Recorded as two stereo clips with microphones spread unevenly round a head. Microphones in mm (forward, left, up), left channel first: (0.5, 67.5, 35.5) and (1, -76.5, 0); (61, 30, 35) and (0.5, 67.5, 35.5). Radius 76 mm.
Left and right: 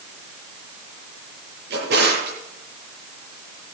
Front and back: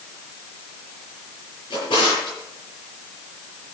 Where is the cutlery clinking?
No cutlery clinking in this recording.